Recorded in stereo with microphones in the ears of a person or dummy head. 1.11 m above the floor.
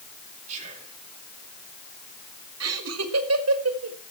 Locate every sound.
0.5 s whispering: 35° right (ahead or behind), 4.5 m
2.6 s laughter: 75° right (ahead or behind), 1.6 m